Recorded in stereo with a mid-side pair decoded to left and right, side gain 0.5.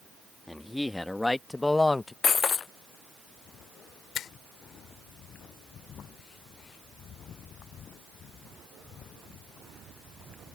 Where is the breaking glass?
40° left.